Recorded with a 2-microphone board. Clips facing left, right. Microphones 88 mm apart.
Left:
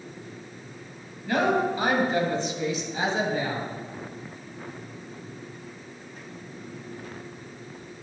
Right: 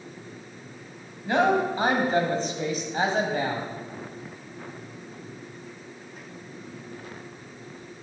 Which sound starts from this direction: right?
A woman speaking, at 1.2 s.